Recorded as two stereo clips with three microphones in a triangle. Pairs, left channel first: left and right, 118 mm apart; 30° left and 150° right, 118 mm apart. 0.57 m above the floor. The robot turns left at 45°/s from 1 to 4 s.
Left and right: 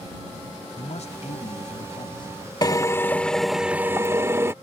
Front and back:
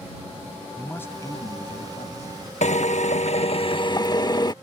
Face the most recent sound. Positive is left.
turn(degrees=-25)